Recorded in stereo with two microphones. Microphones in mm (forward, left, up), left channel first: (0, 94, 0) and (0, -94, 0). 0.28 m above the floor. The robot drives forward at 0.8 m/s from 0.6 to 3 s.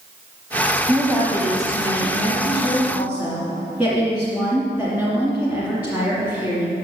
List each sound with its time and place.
0.9 s a woman speaking: 15° right (ahead or behind), 1.3 m; by 6.8 s 5° right (ahead or behind), 2.5 m